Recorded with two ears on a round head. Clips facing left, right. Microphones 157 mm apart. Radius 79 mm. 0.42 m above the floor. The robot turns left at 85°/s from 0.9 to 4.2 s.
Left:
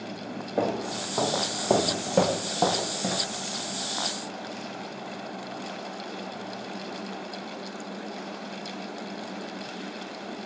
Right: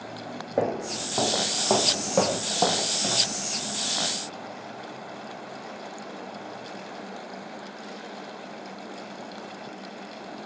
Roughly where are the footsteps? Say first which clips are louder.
Right 1 dB; right.